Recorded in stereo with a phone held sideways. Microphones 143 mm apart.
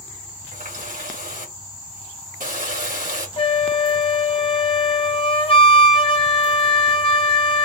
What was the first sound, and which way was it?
A running tap, 70° right (ahead or behind).